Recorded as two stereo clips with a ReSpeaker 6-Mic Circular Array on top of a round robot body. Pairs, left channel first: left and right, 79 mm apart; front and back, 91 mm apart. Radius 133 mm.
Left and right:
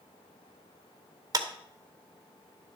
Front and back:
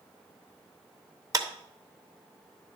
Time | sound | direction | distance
1.3 | a clap | 130° right | 1.3 m